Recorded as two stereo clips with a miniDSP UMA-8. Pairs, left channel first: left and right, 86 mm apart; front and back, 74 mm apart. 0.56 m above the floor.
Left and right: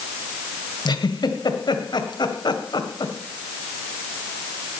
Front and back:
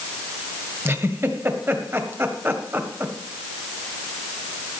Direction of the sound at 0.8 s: 125° left.